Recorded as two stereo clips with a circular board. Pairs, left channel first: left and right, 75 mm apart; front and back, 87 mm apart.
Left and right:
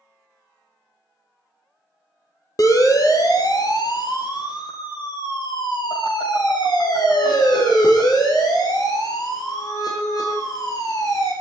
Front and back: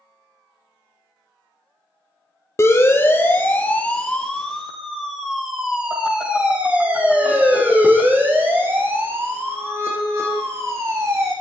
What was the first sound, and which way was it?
A siren, 55° left.